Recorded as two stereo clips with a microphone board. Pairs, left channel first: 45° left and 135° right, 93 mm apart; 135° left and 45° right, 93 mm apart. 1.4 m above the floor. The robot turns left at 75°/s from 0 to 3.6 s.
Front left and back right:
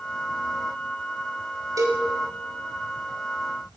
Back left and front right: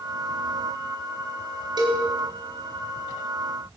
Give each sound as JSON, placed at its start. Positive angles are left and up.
{"t": 1.8, "sound": "a cowbell", "azimuth_deg": -85, "distance_m": 4.0}